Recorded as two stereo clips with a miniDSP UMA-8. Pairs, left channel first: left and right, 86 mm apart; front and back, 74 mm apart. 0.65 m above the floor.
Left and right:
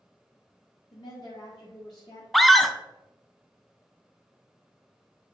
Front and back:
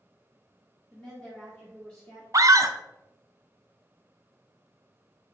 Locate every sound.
0.9 s a woman speaking: 75° left, 1.7 m
2.3 s a scream: straight behind, 0.8 m